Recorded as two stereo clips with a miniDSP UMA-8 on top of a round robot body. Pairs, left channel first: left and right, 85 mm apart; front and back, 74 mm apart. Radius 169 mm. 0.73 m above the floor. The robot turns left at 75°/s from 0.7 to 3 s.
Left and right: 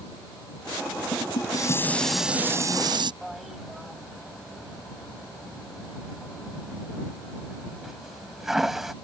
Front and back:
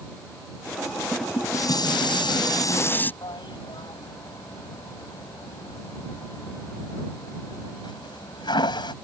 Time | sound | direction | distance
1.1 | dishes clattering | 75° left | ?
3.2 | a toilet flushing | 5° right | ?